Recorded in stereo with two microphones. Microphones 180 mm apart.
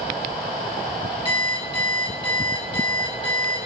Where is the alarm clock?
30° left (ahead or behind), 5.5 m.